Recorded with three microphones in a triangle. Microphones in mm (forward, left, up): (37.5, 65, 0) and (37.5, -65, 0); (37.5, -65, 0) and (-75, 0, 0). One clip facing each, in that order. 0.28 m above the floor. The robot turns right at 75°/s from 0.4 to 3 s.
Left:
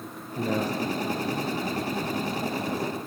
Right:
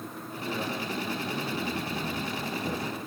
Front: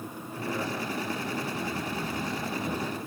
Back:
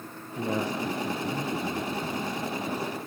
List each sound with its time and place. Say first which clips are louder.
0.3 s a man speaking: left 7 dB, back 4 dB; 100° left, 5.5 m; by 3.0 s 70° right, 5.5 m